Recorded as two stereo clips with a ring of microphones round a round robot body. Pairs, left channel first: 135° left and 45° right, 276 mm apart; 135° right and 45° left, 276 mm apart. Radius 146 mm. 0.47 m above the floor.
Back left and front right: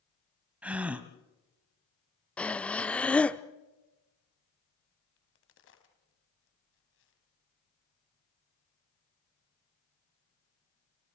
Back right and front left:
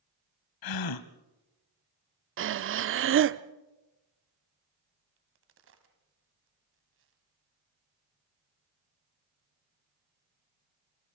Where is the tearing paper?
No tearing paper in this recording.